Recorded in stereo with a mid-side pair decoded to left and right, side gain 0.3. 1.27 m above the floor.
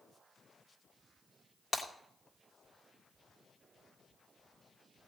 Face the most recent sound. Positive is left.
turn(degrees=60)